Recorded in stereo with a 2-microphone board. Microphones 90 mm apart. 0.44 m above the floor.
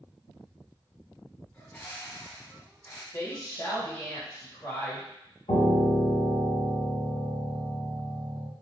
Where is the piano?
65° left (ahead or behind), 0.9 m.